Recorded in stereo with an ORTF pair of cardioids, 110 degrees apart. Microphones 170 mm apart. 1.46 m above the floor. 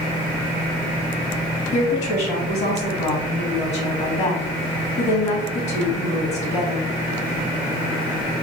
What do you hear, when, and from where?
1.7 s a woman speaking: 40° left, 2 m